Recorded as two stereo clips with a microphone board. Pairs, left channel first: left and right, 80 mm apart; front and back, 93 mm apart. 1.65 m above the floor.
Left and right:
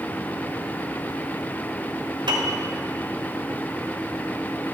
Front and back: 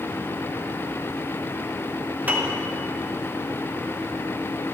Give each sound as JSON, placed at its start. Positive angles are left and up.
{"t": 2.3, "sound": "a piano", "azimuth_deg": -105, "distance_m": 1.1}